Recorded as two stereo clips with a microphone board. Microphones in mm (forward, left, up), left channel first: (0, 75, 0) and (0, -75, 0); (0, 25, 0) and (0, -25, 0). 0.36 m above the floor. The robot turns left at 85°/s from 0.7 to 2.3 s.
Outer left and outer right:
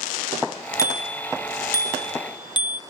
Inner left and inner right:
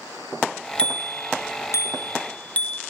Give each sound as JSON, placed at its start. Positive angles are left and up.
{"t": 0.8, "sound": "a bicycle bell", "side_deg": 20, "distance_m": 3.5}